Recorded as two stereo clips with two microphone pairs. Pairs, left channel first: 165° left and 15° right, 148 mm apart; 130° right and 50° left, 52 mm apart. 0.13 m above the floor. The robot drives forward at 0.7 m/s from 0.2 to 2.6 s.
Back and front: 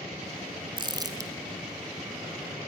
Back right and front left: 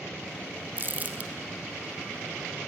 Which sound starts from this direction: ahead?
Crumpling, at 0.8 s.